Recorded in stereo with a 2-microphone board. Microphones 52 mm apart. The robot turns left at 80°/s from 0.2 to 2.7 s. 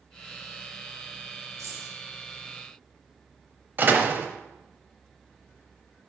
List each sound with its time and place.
1.6 s keys jangling: 70° right (ahead or behind), 2 m; by 1.9 s 60° right (ahead or behind), 2 m
3.8 s a door slam: 40° right (ahead or behind), 0.8 m